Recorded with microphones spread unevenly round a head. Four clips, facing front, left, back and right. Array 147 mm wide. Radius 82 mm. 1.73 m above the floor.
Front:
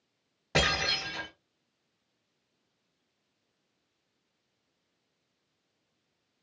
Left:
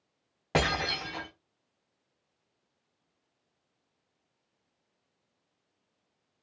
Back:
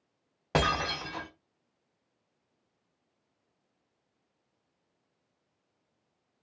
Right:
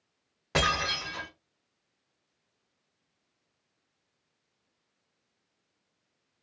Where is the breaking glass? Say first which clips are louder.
Even, back 2 dB; 145° left, 3 m.